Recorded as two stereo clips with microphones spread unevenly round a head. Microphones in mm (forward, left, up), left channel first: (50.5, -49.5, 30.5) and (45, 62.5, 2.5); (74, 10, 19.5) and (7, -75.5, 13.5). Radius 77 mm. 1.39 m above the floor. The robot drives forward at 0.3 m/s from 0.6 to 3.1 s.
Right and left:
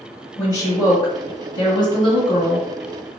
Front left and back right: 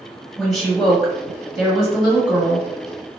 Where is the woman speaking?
40° right, 1.3 m; by 2.7 s 65° right, 0.9 m.